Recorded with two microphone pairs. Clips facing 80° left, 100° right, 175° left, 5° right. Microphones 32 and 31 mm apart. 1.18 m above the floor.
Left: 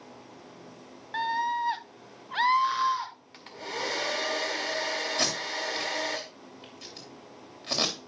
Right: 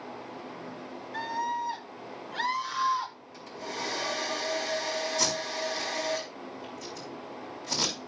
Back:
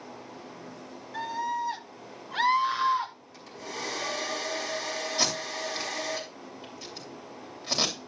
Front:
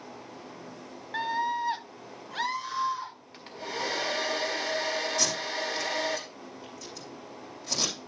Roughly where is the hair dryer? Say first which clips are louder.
Left 2 dB, front 3 dB; ahead left.